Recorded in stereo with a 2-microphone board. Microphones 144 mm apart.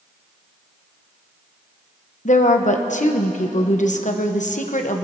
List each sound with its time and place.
2.2 s a woman speaking: 60° left (ahead or behind), 1.1 m